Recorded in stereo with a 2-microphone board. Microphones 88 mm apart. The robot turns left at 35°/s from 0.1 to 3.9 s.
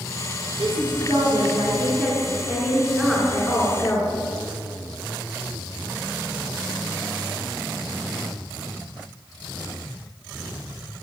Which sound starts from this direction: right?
A woman speaking, at 0.6 s.